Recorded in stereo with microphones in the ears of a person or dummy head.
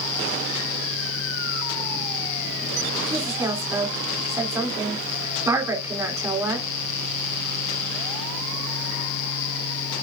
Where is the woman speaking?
20° right (ahead or behind), 3.5 m.